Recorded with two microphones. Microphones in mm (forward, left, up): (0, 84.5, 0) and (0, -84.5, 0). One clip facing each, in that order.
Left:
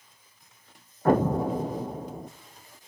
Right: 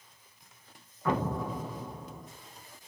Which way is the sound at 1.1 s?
50° left (ahead or behind).